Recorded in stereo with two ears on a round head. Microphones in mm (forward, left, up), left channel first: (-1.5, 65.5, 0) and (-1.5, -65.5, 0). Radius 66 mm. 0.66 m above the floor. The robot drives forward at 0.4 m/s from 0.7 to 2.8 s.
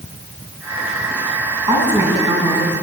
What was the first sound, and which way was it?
A woman speaking, 15° right (ahead or behind).